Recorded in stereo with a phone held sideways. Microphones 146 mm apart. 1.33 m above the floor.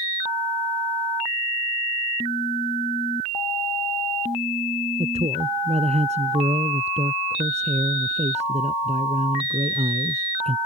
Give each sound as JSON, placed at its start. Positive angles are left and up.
{"t": 5.0, "sound": "a man speaking", "side_deg": -55}